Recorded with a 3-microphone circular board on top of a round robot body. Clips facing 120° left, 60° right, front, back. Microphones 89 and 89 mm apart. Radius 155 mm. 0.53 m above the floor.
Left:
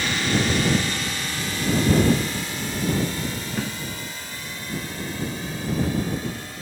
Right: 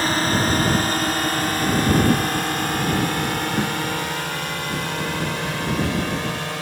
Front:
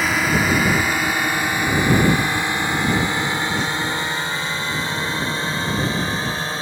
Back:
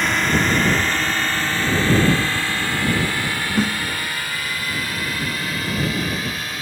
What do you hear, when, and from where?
0.0 s a drone: 85° right; by 6.6 s 60° right
3.6 s a snare drum: 130° right